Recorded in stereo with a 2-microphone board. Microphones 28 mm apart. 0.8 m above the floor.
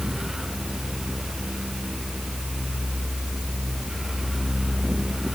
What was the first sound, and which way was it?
Only background noise.